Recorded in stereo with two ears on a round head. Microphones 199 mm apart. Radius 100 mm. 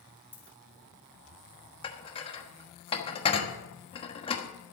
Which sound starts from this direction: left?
Dishes clattering, at 1.8 s.